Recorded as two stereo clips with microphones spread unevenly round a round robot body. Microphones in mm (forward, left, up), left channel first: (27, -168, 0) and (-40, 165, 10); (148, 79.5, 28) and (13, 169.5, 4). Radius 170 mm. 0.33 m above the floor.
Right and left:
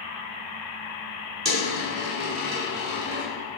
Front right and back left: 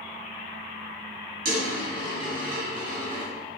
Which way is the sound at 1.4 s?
175° left.